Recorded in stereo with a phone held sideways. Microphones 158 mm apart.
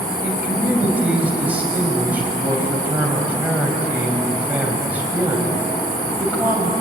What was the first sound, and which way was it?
A man speaking, 10° right (ahead or behind).